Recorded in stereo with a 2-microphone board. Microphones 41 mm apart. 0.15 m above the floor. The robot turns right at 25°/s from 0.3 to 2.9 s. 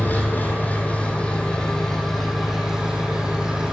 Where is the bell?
I don't hear a bell.